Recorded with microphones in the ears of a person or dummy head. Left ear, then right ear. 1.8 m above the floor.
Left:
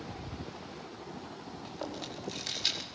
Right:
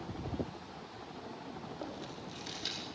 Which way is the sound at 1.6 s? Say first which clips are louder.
Left 6 dB; 25° left (ahead or behind).